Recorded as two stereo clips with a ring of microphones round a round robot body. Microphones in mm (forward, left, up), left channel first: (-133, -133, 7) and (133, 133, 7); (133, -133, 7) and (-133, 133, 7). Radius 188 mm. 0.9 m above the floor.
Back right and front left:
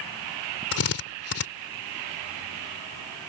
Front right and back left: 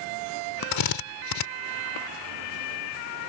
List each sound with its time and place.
0.7 s a drill: 80° right